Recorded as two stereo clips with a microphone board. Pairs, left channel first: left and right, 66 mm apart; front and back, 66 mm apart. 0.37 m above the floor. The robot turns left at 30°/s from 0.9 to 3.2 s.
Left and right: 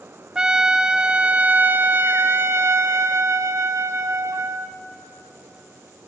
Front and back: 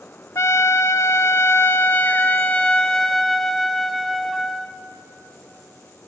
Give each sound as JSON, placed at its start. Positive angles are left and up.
{"t": 0.3, "sound": "a trumpet", "azimuth_deg": -15, "distance_m": 0.7}